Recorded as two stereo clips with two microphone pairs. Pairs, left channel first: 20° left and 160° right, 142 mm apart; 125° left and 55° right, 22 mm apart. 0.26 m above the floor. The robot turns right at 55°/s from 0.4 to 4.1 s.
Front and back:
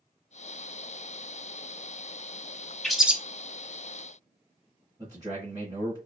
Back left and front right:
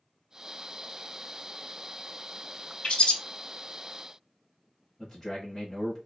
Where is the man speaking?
Straight behind, 1.0 m.